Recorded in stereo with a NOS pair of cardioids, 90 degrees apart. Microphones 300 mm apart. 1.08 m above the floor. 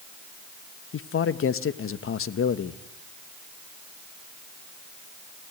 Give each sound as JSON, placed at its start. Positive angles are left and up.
{"t": 0.9, "sound": "a man speaking", "azimuth_deg": 45, "distance_m": 1.3}